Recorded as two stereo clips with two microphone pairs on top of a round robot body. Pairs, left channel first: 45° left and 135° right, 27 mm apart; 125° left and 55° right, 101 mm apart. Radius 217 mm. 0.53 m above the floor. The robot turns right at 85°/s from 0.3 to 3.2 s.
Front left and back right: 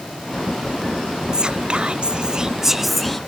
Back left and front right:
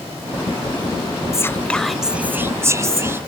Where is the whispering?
Straight behind; by 3.2 s 25° right.